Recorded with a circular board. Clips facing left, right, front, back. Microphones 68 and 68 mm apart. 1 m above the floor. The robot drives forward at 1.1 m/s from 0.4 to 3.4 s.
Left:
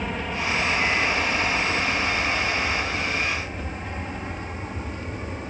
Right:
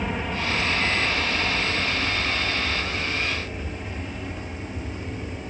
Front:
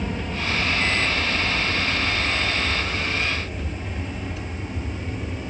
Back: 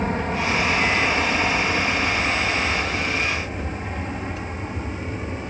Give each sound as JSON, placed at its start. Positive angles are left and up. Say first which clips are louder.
{"t": 0.0, "sound": "an aircraft", "louder": "even, back 5 dB", "azimuth_deg": 180}